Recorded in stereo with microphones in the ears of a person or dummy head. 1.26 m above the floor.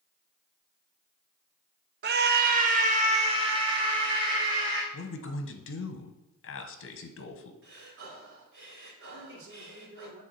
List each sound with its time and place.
2.0 s a scream: 45° right (ahead or behind), 0.6 m; by 4.8 s 15° right (ahead or behind), 1.9 m
4.9 s a man speaking: 60° left (ahead or behind), 1.0 m
7.6 s breathing: 65° right (ahead or behind), 2.5 m
9.1 s a man speaking: 60° right (ahead or behind), 2 m